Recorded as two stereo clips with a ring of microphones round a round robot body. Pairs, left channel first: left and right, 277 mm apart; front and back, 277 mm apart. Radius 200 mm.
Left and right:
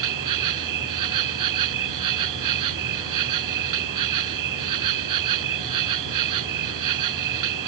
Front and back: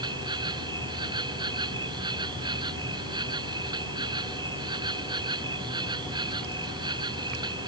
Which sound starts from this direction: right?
An insect, at 0.0 s.